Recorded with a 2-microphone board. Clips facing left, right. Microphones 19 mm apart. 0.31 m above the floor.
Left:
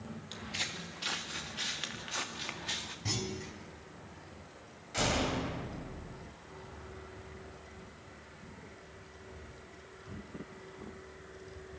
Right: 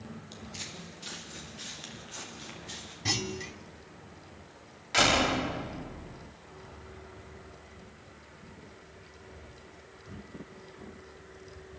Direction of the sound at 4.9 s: 45° right (ahead or behind).